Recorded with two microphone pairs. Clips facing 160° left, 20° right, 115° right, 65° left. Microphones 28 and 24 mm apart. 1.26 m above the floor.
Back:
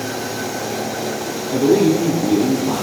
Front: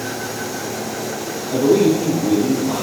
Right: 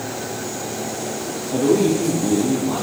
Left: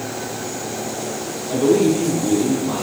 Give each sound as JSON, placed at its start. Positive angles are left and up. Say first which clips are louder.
{"t": 1.5, "sound": "a man speaking", "louder": "even, left 1 dB", "azimuth_deg": 95, "distance_m": 1.9}